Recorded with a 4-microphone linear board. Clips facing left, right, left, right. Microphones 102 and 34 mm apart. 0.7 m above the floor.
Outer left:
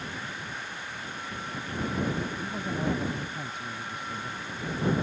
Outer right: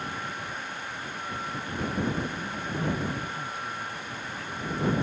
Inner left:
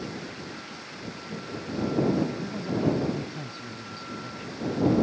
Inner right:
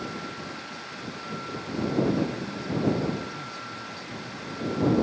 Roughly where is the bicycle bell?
I don't hear a bicycle bell.